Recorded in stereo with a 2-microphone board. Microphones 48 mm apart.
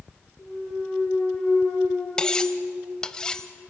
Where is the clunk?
20° left (ahead or behind), 9 m.